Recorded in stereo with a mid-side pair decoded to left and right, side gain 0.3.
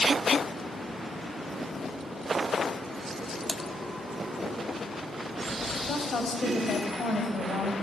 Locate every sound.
3.5 s typing on a keyboard: 20° left, 1.5 m
5.9 s a woman speaking: 65° left, 7 m